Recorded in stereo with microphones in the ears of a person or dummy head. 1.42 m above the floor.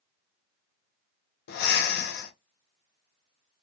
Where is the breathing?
60° left (ahead or behind), 0.9 m.